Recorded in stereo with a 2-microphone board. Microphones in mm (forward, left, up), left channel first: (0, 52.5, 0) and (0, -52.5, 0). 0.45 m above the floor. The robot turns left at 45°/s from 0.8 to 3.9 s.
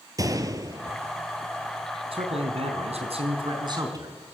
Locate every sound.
0.2 s a gunshot: 35° right (ahead or behind), 1.5 m; by 1.0 s 25° right (ahead or behind), 1.5 m
2.1 s a man speaking: 65° right, 4 m; by 4.3 s 145° right, 4 m